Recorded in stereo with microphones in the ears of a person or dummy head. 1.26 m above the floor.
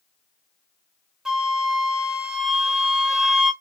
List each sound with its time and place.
1.2 s a flute: centre (ahead or behind), 0.6 m